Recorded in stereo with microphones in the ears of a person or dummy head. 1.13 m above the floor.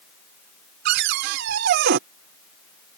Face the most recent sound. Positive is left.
turn(degrees=-55)  # may be behind; listen again after turning